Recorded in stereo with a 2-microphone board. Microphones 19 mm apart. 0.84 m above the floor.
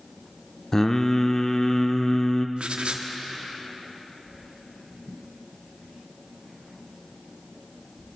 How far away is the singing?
About 0.5 m.